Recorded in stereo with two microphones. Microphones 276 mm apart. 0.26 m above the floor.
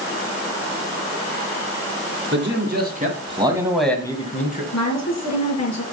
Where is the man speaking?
45° right (ahead or behind), 3 m; by 4.6 s 35° left (ahead or behind), 2 m.